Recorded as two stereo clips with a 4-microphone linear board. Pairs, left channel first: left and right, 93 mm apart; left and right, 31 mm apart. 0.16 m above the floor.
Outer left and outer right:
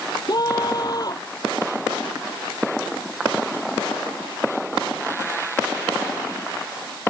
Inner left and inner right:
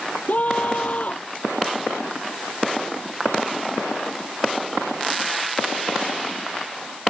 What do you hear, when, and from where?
0.3 s a scream: 45° left (ahead or behind)